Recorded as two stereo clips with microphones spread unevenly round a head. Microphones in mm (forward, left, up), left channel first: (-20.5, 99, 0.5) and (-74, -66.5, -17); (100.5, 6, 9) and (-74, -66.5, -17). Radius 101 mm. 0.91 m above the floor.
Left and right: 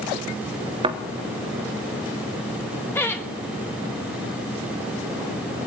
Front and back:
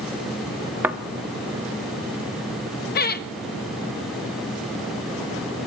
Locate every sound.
0.8 s a thud: 70° right, 0.9 m
3.0 s laughter: 10° right, 1.5 m